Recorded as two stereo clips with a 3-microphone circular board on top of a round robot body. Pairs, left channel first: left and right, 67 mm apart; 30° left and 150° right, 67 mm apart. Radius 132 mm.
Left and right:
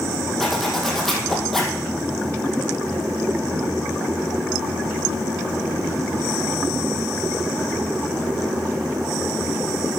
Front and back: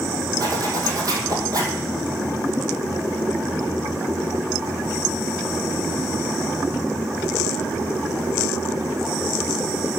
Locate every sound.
0.4 s a zipper: 175° left, 2.5 m